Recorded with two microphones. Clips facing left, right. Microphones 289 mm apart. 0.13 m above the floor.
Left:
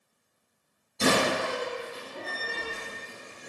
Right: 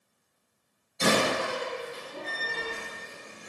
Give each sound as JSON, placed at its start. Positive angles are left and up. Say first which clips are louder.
{"t": 1.0, "sound": "a door slam", "louder": "left 1 dB", "side_deg": 35, "distance_m": 1.9}